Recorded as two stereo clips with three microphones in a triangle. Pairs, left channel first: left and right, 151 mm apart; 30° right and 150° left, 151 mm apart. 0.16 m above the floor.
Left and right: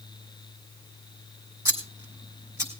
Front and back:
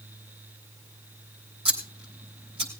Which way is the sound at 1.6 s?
160° right.